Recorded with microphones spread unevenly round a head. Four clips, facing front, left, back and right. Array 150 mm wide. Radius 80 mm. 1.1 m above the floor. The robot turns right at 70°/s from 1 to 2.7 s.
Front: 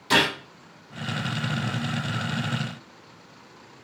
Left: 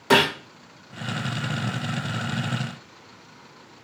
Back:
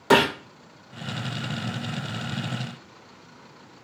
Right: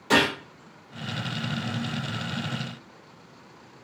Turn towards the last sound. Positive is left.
turn(degrees=-80)